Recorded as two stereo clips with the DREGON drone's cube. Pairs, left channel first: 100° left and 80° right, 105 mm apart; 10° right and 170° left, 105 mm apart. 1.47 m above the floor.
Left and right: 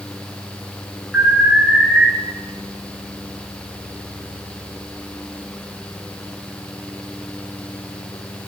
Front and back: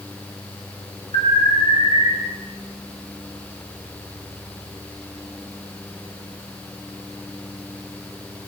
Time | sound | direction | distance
1.1 | an alarm | 10° left | 7 m